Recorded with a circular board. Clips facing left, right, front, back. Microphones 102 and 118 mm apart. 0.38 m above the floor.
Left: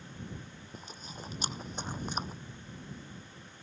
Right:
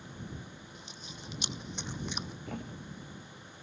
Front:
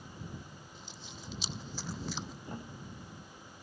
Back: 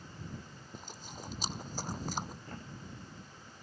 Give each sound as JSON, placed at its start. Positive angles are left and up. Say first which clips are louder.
{"t": 0.7, "sound": "chewing", "louder": "left 3 dB, back 7 dB", "azimuth_deg": 135}
{"t": 2.5, "sound": "a thud", "louder": "right 5 dB, front 2 dB", "azimuth_deg": -75}